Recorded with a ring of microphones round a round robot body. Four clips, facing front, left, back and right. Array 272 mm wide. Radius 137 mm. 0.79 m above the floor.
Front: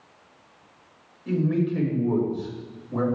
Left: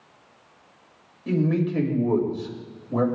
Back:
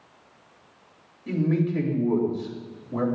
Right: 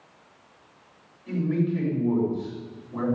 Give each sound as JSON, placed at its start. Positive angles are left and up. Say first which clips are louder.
{"t": 1.3, "sound": "a man speaking", "louder": "left 3 dB, front 1 dB", "azimuth_deg": 90, "distance_m": 4.5}